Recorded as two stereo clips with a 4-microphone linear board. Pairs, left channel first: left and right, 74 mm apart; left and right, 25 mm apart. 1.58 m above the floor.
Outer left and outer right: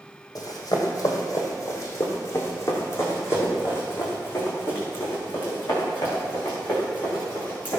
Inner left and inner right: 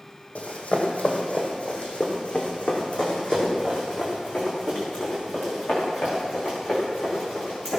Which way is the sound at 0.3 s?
50° left (ahead or behind).